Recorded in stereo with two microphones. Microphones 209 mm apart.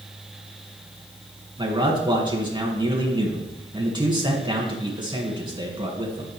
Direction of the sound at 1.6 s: 20° right (ahead or behind).